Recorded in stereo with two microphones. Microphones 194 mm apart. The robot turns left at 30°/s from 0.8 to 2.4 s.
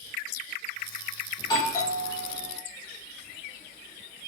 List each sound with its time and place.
1.4 s a doorbell: 20° left (ahead or behind), 0.9 m; by 2.6 s 10° left (ahead or behind), 0.9 m